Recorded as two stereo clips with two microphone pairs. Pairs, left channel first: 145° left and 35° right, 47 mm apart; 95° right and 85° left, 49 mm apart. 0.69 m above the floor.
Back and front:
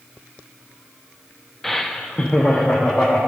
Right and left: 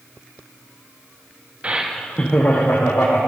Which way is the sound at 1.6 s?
65° left.